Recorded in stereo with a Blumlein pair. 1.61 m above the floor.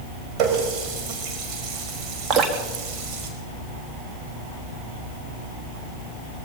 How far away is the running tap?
About 5 m.